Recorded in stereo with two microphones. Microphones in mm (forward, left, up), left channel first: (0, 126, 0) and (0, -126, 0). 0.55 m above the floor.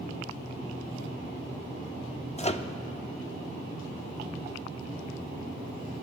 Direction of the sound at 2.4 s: 25° left (ahead or behind).